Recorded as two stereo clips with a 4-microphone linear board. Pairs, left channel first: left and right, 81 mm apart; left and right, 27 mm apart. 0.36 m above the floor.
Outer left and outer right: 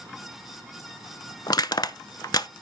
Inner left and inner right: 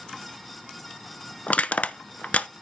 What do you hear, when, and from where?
1.5 s crushing: 55° left (ahead or behind), 0.6 m